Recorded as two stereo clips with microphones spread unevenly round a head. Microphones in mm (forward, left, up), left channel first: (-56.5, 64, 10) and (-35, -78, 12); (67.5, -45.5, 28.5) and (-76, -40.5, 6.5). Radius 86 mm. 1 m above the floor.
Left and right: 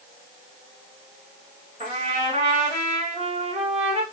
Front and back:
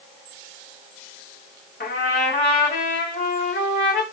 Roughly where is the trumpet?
Ahead right.